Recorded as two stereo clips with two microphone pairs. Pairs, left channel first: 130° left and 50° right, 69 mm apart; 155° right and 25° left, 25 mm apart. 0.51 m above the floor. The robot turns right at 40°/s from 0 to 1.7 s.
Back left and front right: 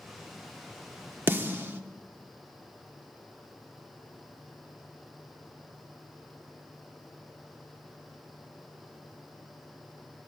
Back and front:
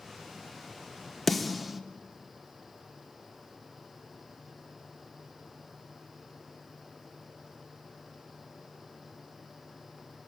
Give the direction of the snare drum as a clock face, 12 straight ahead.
2 o'clock.